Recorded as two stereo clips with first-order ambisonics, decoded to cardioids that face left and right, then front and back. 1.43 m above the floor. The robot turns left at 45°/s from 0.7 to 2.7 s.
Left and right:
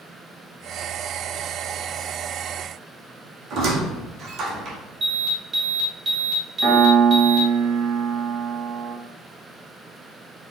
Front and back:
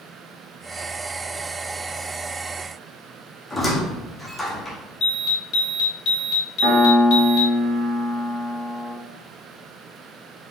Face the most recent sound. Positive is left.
turn(degrees=-155)